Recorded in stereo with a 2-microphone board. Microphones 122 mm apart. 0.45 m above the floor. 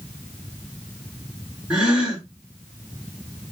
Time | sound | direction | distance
1.7 | a gasp | 10° right (ahead or behind) | 3 m